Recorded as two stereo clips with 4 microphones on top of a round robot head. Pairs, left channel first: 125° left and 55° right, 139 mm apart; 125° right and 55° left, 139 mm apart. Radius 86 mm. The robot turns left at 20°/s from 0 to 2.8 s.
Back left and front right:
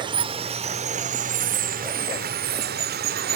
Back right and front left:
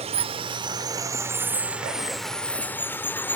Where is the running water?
5° left, 1.0 m; by 3.4 s 50° right, 1.0 m.